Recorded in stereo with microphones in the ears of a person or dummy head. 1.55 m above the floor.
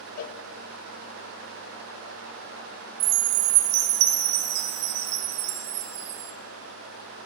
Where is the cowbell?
50° left (ahead or behind), 1.1 m.